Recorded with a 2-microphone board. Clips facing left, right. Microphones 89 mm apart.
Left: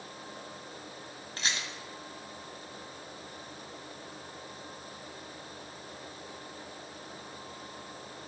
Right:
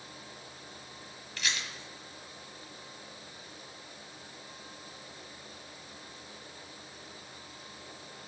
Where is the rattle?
30° left (ahead or behind), 1.2 m.